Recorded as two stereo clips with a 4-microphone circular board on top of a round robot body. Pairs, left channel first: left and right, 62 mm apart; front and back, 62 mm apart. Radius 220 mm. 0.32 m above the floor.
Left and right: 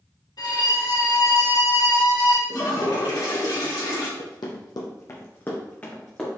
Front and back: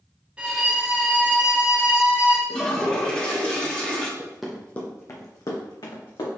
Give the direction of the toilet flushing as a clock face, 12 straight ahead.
9 o'clock.